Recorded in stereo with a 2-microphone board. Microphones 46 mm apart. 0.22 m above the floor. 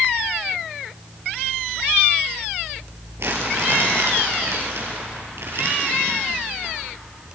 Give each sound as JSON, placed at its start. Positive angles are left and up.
{"t": 3.2, "sound": "crumpling", "side_deg": -65, "distance_m": 4.5}